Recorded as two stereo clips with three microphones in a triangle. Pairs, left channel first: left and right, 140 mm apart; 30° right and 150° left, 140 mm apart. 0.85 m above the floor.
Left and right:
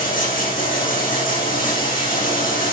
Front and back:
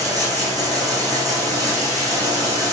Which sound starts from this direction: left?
Running water, at 0.0 s.